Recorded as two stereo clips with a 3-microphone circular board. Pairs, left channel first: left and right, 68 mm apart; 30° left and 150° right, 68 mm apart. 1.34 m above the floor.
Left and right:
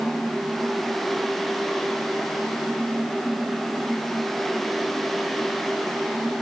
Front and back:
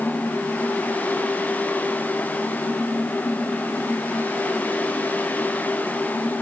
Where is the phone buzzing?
No phone buzzing in this recording.